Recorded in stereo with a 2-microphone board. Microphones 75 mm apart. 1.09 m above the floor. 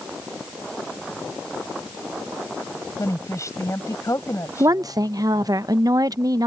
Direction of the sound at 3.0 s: 45° left (ahead or behind).